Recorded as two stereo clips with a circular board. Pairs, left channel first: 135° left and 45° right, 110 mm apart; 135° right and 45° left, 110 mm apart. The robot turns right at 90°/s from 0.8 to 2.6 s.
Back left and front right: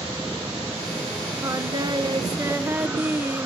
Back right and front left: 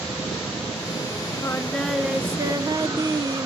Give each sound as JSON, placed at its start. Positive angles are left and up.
{"t": 1.4, "sound": "singing", "azimuth_deg": -90, "distance_m": 0.6}